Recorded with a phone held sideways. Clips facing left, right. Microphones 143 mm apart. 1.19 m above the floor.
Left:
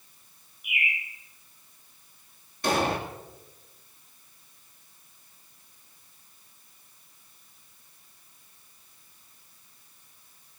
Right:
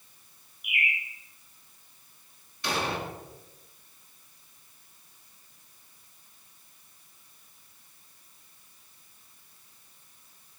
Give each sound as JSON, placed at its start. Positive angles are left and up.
{"t": 0.6, "sound": "a bird", "side_deg": -65, "distance_m": 8.0}
{"t": 2.6, "sound": "an explosion", "side_deg": 45, "distance_m": 2.0}